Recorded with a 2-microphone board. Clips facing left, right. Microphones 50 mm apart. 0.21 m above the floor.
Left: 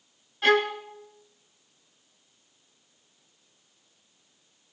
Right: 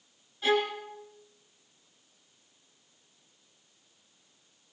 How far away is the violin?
About 1.4 m.